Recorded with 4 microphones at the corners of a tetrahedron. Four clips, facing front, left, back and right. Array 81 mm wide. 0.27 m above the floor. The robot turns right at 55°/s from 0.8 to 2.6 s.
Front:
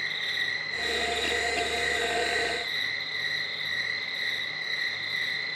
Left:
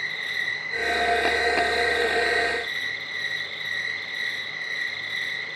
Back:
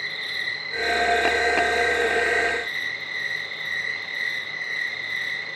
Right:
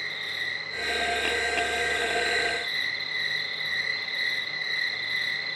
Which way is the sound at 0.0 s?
100° left.